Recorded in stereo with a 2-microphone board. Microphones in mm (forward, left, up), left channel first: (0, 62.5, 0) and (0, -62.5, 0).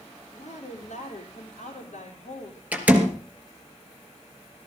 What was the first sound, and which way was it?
A woman speaking, 75° left (ahead or behind).